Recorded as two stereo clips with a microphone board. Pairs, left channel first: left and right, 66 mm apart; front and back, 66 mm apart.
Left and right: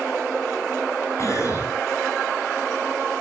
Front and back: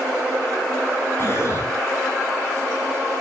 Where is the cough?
45° left, 7 m.